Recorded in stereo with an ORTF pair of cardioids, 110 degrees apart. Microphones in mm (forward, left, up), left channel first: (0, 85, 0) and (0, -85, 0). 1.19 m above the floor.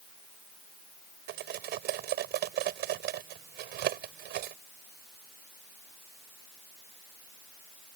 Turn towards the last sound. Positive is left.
turn(degrees=-70)